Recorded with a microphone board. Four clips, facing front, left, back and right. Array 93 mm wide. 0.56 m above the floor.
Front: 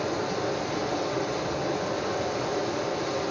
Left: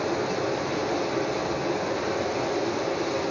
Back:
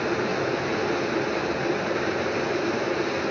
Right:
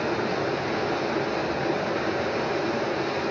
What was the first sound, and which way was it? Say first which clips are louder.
Running water: even, back 3 dB; 155° right.